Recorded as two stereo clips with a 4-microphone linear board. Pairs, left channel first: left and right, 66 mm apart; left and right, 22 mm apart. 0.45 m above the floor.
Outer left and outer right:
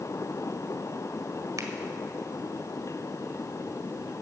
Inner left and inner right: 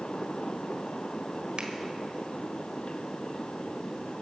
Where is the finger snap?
55° right (ahead or behind), 1.4 m.